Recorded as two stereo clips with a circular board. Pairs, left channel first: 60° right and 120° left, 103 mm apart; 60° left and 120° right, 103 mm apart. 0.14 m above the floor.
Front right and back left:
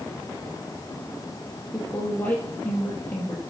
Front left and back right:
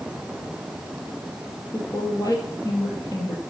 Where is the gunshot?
No gunshot in this recording.